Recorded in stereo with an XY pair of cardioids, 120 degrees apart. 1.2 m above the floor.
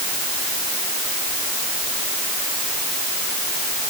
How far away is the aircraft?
No aircraft in this recording.